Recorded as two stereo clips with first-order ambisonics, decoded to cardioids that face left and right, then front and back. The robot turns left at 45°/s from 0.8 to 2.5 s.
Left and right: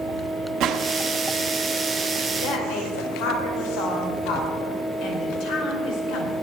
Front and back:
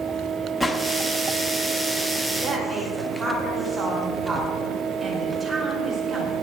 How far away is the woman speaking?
About 5 m.